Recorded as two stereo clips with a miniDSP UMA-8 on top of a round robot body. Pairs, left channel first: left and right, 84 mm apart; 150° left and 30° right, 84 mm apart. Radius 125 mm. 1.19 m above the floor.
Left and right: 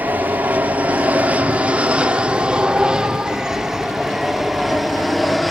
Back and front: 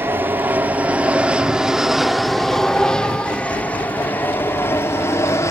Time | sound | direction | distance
0.0 | an aircraft | 45° right | ?